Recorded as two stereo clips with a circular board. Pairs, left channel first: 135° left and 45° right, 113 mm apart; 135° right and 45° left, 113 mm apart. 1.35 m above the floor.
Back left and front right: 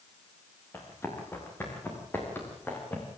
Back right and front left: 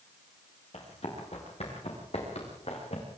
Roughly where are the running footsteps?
Behind right.